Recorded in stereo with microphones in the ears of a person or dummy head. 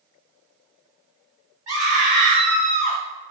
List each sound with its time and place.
1.7 s a scream: 20° right (ahead or behind), 1.4 m; by 3.0 s 5° right (ahead or behind), 0.7 m